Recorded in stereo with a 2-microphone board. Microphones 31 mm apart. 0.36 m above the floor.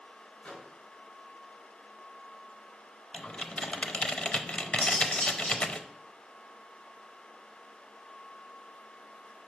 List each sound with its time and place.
0.4 s a microwave: 50° left (ahead or behind), 2 m
3.1 s typing on a keyboard: 40° left (ahead or behind), 0.5 m
4.8 s cutlery clinking: 80° left, 3.5 m